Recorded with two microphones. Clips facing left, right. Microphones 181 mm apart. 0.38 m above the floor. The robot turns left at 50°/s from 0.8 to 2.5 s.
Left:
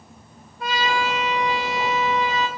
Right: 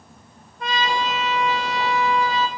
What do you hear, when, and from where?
0.6 s a trumpet: 5° left (ahead or behind), 0.7 m; by 2.5 s 20° left (ahead or behind), 0.7 m